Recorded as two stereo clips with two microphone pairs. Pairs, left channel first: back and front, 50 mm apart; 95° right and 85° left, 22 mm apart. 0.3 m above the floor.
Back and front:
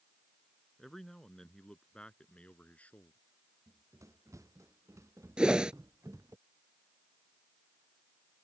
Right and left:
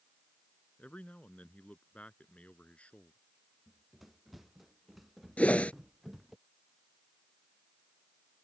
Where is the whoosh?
75° right.